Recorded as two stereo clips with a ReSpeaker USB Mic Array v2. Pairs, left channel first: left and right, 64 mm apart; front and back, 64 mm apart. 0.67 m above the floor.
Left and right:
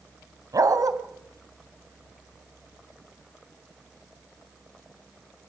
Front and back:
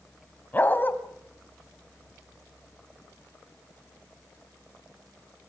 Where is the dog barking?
60° right, 1.9 m.